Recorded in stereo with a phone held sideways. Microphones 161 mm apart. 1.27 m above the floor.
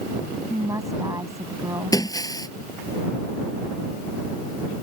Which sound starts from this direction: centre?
A woman speaking, at 0.5 s.